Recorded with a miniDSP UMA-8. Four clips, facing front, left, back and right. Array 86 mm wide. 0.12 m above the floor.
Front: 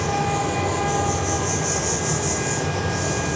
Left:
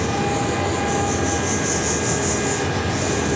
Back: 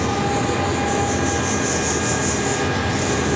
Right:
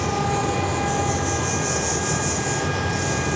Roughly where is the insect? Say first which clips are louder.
Left 1 dB, back 2 dB; behind left.